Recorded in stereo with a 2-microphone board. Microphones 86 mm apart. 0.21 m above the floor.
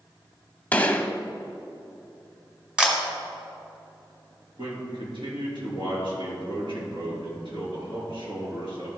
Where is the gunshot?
20° left (ahead or behind), 0.6 m.